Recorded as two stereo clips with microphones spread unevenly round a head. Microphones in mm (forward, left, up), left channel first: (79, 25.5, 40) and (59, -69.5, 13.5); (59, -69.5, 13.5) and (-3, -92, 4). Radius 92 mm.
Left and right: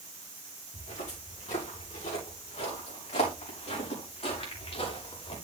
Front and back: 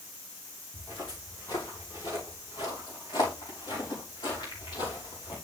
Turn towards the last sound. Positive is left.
turn(degrees=65)